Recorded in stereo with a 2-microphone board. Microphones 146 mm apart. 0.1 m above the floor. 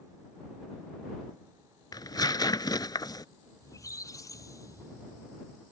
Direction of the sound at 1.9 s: 30° left (ahead or behind).